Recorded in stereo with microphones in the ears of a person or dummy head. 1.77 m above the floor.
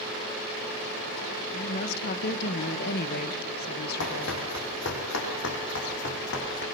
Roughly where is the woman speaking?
Left.